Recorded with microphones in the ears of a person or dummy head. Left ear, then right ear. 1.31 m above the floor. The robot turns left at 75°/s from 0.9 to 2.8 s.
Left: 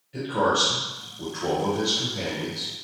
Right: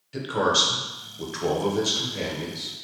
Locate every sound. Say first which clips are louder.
0.1 s a man speaking: right 1 dB; 40° right, 0.8 m; by 2.7 s 175° right, 0.8 m